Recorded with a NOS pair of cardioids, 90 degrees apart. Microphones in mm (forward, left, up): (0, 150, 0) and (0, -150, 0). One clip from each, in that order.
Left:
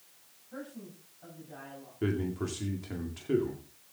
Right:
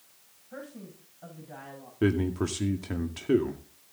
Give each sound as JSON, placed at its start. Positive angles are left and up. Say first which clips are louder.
{"t": 0.5, "sound": "a man speaking", "louder": "right 1 dB", "azimuth_deg": -35, "distance_m": 6.0}
{"t": 2.0, "sound": "a man speaking", "louder": "right 6 dB", "azimuth_deg": -45, "distance_m": 1.9}